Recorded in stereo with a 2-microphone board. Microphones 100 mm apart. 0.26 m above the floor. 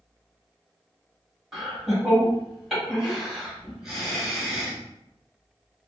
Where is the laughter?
5° right (ahead or behind), 1.8 m.